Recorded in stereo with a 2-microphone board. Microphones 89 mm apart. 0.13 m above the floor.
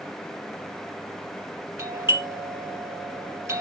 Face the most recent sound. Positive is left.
turn(degrees=-30)  # may be behind; listen again after turning